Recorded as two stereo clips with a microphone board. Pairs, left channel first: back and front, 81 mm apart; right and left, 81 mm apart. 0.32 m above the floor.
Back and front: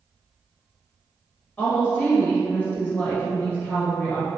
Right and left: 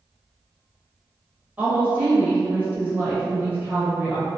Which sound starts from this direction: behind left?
A woman speaking, at 1.6 s.